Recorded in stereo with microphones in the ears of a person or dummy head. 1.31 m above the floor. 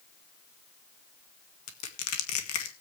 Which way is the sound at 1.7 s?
85° left.